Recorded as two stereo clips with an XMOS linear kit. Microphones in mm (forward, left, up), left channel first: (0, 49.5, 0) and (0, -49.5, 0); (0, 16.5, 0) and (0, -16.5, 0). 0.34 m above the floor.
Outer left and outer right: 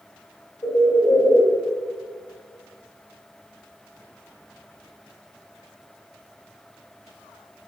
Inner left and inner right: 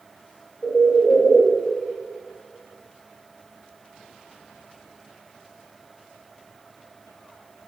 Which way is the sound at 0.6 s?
30° left (ahead or behind).